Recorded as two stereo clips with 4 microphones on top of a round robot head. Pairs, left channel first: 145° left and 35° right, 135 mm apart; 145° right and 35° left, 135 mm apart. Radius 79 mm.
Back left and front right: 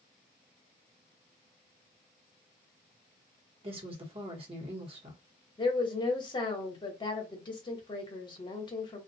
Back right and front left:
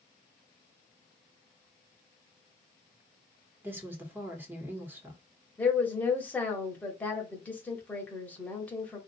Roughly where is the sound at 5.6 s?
Behind left.